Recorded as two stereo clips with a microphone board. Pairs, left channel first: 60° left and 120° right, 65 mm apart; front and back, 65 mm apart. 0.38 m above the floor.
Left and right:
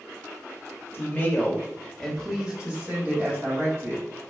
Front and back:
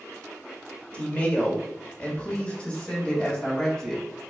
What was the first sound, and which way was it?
A woman speaking, 50° left.